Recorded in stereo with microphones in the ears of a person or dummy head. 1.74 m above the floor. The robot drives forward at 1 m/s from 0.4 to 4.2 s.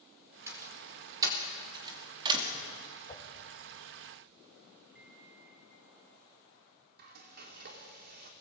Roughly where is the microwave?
Centre.